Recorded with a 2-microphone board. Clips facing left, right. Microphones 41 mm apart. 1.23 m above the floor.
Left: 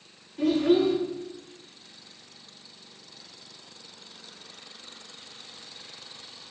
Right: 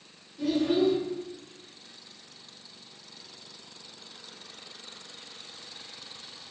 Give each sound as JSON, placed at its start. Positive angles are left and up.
{"t": 0.4, "sound": "a child speaking", "side_deg": 60, "distance_m": 1.2}